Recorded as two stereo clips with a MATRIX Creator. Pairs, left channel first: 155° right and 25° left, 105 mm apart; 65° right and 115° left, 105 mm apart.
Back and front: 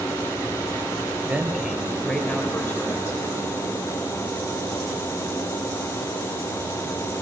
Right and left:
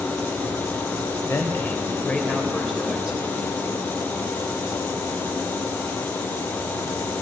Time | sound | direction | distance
1.3 | a man speaking | 35° right | 1.3 m